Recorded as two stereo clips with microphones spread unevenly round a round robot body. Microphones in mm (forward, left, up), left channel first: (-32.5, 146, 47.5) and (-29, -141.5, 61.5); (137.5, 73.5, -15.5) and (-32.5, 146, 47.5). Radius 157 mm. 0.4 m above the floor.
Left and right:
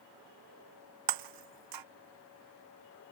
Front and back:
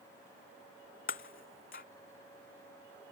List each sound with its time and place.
1.1 s breaking glass: 85° right